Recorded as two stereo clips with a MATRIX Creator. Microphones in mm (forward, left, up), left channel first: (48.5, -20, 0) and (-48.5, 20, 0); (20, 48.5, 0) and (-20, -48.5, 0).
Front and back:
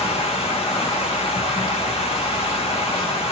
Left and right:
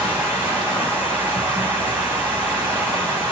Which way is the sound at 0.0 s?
40° right.